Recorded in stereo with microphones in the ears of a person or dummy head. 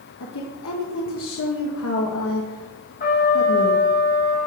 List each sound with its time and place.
0.2 s a woman speaking: 70° left (ahead or behind), 1.3 m
3.0 s a trumpet: 45° left (ahead or behind), 3.5 m